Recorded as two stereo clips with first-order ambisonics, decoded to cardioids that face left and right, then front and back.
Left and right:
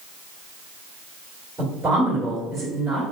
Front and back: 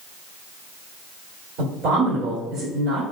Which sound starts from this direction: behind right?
A woman speaking, at 1.6 s.